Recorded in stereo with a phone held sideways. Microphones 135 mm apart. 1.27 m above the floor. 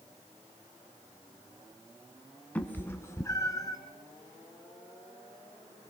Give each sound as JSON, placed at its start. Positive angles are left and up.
{"t": 2.5, "sound": "a cat meowing", "side_deg": 10, "distance_m": 1.3}